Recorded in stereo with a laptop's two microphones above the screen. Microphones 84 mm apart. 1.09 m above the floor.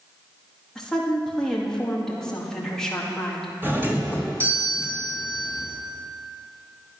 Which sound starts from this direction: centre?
A woman speaking, at 0.8 s.